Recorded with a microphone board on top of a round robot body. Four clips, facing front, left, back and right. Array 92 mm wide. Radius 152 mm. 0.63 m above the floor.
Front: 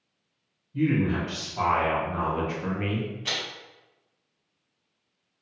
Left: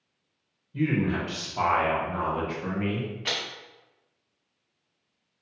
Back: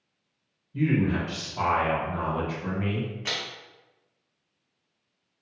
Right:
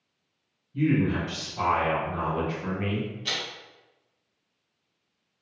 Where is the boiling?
I don't hear boiling.